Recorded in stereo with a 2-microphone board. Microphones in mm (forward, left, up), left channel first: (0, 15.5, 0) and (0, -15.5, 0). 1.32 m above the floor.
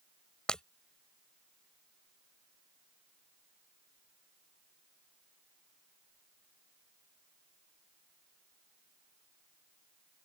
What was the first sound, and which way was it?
Breaking glass, 25° left (ahead or behind).